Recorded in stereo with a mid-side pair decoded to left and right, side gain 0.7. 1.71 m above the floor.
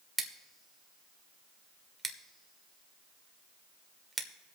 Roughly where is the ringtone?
No ringtone in this recording.